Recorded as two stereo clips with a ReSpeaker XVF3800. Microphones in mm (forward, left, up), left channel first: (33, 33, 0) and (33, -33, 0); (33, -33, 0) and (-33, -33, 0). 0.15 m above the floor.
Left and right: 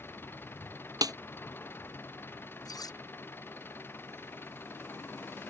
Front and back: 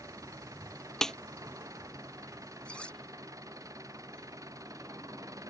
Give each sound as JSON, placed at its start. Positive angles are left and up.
{"t": 0.0, "sound": "an engine running", "azimuth_deg": 145}
{"t": 1.0, "sound": "a snare drum", "azimuth_deg": -85}
{"t": 2.6, "sound": "cutlery clinking", "azimuth_deg": 75}